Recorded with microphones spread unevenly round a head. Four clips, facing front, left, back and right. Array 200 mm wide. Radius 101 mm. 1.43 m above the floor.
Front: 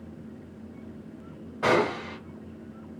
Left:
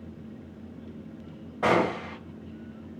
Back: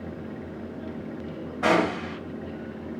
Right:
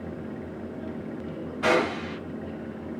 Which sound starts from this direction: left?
A gunshot, at 1.6 s.